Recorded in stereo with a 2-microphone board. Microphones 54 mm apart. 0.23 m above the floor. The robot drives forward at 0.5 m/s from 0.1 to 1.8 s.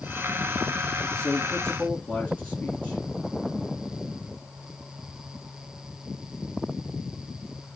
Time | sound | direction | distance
1.1 | a man speaking | 15° left (ahead or behind) | 4 m